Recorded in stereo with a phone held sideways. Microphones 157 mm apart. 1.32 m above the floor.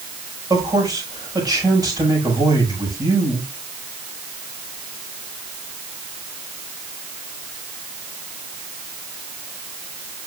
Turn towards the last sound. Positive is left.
turn(degrees=-25)  # may be behind; listen again after turning